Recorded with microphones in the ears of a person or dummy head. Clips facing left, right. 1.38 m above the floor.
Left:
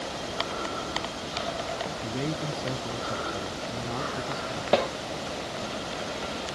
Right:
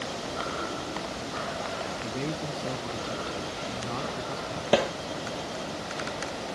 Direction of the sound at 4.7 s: 10° right (ahead or behind).